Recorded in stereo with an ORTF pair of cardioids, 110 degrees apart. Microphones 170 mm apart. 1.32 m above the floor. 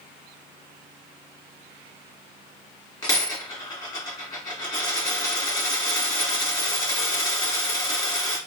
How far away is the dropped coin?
About 1.9 m.